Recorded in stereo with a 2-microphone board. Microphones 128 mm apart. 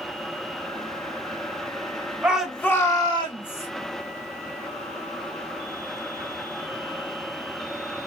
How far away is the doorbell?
I don't hear a doorbell.